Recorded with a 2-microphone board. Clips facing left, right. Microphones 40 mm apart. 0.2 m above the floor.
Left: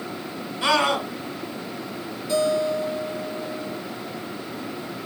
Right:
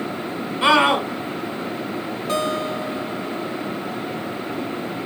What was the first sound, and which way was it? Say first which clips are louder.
A scream: right 5 dB; 35° right (ahead or behind).